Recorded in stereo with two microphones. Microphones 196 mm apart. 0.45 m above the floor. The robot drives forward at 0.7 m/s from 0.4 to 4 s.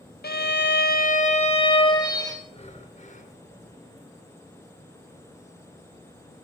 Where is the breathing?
30° left (ahead or behind), 1.7 m; by 3.3 s 45° left (ahead or behind), 1.2 m.